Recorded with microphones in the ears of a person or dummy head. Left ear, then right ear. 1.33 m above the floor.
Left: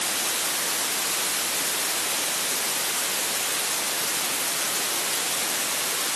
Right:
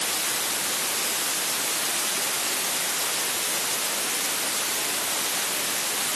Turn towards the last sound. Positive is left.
No sound to turn to.